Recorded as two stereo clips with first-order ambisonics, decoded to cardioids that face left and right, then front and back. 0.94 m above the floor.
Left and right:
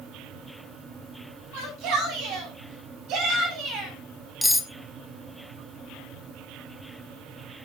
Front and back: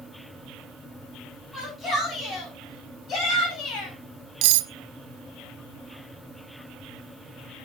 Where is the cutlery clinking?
Straight behind, 0.6 m.